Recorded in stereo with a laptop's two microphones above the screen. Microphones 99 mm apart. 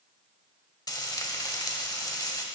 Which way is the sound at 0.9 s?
40° left (ahead or behind).